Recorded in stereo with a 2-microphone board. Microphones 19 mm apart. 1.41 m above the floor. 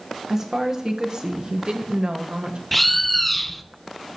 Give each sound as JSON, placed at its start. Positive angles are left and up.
{"t": 0.3, "sound": "a woman speaking", "side_deg": -25, "distance_m": 1.4}
{"t": 2.7, "sound": "a bird", "side_deg": 0, "distance_m": 0.6}